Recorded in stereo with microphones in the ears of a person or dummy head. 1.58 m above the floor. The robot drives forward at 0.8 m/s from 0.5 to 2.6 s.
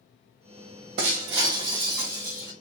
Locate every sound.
1.0 s breaking glass: 25° right (ahead or behind), 0.7 m; by 2.5 s 15° right (ahead or behind), 1.3 m